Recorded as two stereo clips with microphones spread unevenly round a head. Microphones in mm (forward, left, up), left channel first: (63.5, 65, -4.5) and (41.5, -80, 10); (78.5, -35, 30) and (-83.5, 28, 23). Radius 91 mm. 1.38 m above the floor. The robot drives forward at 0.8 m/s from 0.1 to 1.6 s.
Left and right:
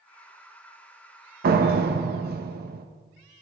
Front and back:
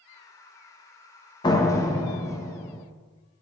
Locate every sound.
1.4 s a door slam: 85° right, 1.1 m; by 2.9 s 95° right, 1.1 m